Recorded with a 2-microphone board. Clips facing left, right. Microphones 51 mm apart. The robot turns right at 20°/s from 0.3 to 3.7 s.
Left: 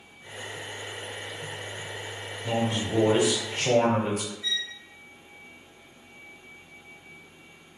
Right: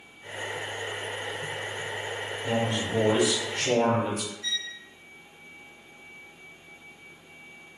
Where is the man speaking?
5° left (ahead or behind), 1.1 m; by 4.3 s 25° left (ahead or behind), 1.1 m.